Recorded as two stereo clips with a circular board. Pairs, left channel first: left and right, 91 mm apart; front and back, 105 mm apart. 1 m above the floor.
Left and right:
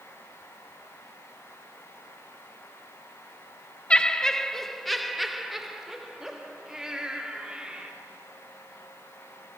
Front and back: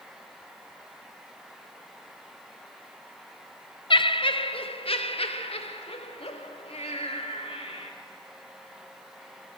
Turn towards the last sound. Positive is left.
turn(degrees=-10)